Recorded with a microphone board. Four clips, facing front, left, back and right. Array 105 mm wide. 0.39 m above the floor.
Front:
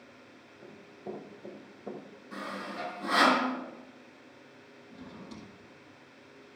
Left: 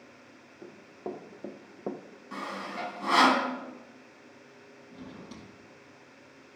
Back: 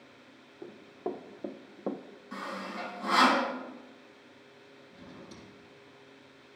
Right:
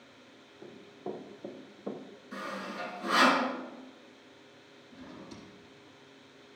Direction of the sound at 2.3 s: 105° left.